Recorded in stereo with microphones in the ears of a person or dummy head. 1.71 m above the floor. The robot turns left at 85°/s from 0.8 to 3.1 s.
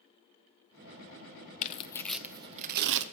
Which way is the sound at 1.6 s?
50° left (ahead or behind).